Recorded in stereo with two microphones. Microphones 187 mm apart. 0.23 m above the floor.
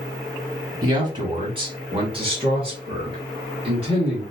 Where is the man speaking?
20° right (ahead or behind), 1.1 m; by 4.2 s 30° right (ahead or behind), 3 m.